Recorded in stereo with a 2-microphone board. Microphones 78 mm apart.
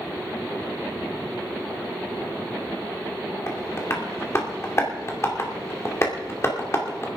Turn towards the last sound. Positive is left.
turn(degrees=35)  # may be behind; listen again after turning